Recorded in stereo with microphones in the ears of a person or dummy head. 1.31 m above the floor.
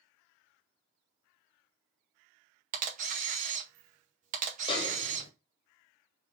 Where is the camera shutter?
45° right (ahead or behind), 0.8 m.